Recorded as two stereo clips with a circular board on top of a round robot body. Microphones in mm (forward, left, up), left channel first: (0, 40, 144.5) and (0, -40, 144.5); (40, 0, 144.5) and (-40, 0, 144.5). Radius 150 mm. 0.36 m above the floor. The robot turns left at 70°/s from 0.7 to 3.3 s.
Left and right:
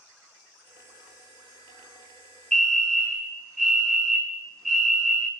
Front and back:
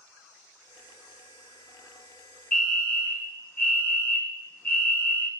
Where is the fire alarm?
45° left, 1.8 m; by 5.3 s 10° right, 1.8 m.